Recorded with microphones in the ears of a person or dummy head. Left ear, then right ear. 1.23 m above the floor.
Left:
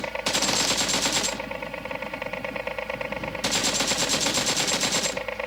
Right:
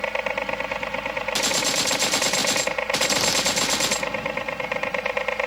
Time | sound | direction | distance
0.0 | a helicopter | 25° right (ahead or behind) | ?